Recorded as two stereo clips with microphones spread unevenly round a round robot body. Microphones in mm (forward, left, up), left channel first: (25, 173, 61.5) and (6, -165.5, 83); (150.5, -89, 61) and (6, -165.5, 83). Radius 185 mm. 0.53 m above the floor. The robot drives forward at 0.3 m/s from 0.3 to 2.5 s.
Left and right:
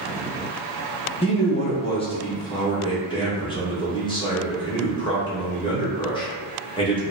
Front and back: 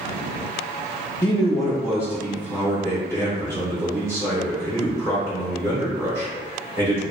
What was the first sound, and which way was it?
A man speaking, 70° left.